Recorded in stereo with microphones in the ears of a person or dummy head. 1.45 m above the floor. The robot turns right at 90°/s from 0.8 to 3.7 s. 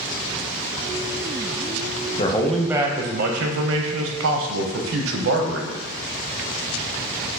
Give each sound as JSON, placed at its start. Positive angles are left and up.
{"t": 2.2, "sound": "a man speaking", "azimuth_deg": 145, "distance_m": 0.6}